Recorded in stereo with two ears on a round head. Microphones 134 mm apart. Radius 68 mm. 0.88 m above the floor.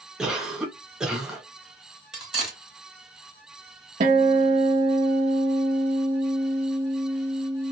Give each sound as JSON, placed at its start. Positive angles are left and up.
{"t": 0.2, "sound": "a cough", "side_deg": -5, "distance_m": 1.1}
{"t": 2.1, "sound": "cutlery clinking", "side_deg": -5, "distance_m": 1.6}
{"t": 4.0, "sound": "a guitar", "side_deg": -50, "distance_m": 0.7}